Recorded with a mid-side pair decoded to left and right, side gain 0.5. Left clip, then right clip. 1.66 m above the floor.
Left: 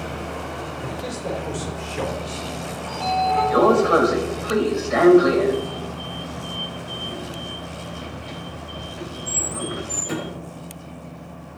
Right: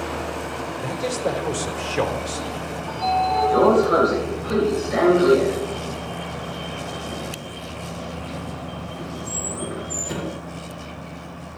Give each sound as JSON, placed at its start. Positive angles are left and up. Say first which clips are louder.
{"t": 0.8, "sound": "a man speaking", "louder": "right 5 dB", "azimuth_deg": -35, "distance_m": 3.0}
{"t": 2.9, "sound": "a sliding door", "louder": "even", "azimuth_deg": 30, "distance_m": 4.5}